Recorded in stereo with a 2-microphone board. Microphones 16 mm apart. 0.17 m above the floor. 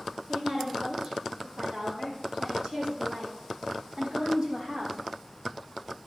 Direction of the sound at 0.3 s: 55° right (ahead or behind).